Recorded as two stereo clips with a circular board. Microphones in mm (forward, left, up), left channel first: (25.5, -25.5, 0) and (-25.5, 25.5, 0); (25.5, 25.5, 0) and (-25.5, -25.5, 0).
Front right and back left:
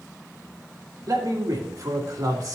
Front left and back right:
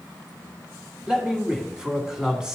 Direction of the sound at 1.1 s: 145° left.